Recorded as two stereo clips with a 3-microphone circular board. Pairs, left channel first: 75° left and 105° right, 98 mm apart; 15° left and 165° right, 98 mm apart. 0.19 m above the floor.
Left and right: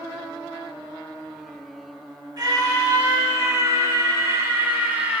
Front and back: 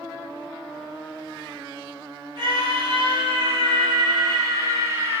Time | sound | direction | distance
2.4 | a scream | 140° right | 2.5 m